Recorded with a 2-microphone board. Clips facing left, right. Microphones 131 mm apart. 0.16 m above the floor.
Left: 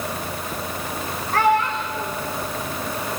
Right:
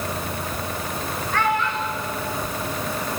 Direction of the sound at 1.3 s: 35° left (ahead or behind).